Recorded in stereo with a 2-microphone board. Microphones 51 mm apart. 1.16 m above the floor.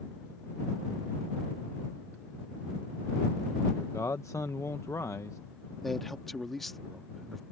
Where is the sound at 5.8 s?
5° left (ahead or behind).